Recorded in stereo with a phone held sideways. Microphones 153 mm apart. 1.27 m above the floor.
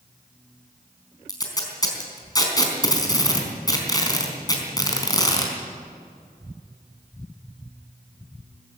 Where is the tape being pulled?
25° left (ahead or behind), 4 m.